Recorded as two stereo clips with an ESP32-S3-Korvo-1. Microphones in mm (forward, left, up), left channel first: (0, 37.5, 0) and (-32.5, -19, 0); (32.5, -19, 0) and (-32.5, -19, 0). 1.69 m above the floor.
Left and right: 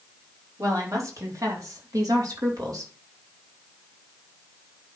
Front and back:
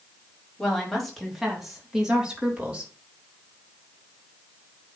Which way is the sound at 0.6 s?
80° right.